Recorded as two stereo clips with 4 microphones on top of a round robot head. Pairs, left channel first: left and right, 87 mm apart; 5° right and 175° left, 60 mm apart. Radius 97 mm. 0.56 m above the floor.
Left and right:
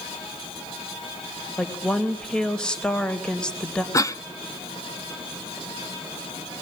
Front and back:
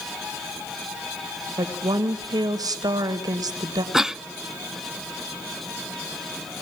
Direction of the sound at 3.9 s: 100° left.